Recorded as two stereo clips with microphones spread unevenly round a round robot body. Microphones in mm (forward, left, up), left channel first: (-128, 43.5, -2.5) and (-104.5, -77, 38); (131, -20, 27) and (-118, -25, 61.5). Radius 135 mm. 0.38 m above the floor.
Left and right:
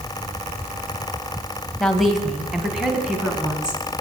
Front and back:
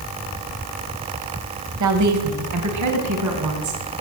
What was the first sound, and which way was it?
A woman speaking, straight behind.